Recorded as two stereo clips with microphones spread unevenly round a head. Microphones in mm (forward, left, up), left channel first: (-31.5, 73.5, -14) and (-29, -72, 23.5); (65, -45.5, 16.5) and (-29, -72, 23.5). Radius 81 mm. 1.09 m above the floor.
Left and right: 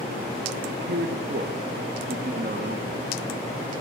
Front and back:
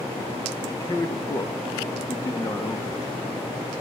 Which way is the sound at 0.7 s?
45° right.